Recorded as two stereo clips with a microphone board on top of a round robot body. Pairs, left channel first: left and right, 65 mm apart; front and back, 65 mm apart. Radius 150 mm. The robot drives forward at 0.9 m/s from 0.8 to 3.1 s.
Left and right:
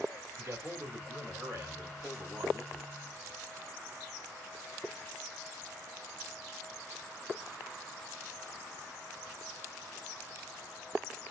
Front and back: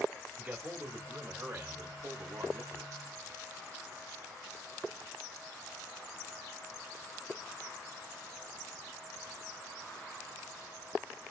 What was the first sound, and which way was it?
A man speaking, 120° right.